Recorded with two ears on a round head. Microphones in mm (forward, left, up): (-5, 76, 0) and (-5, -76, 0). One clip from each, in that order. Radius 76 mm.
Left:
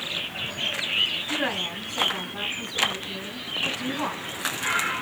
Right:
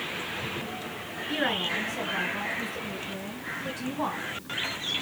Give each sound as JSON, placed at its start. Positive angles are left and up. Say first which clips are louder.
{"t": 1.3, "sound": "a woman speaking", "louder": "left 1 dB", "side_deg": -10, "distance_m": 3.5}